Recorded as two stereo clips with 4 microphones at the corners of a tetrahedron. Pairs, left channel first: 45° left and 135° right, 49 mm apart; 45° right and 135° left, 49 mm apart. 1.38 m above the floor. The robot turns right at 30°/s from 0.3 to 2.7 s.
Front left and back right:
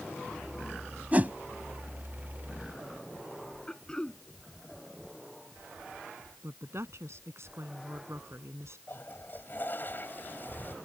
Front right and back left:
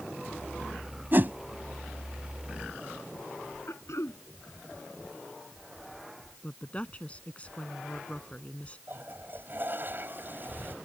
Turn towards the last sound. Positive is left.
turn(degrees=95)